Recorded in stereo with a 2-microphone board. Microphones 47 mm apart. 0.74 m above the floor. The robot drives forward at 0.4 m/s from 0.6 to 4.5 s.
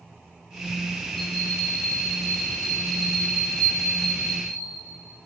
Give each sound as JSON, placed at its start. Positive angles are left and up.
{"t": 1.2, "sound": "a bell", "side_deg": 10, "distance_m": 9.0}